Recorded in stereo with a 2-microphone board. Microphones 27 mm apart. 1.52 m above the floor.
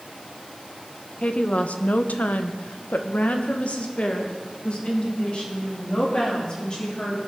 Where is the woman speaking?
50° left (ahead or behind), 1.0 m; by 7.2 s 35° left (ahead or behind), 3.5 m.